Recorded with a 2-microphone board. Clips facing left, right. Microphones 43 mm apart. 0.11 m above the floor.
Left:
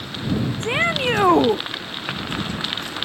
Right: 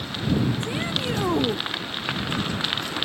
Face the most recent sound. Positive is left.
turn(degrees=55)  # may be behind; listen again after turning